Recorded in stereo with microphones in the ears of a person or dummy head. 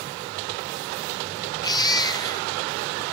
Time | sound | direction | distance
1.6 | a baby crying | 30° left (ahead or behind) | 1.5 m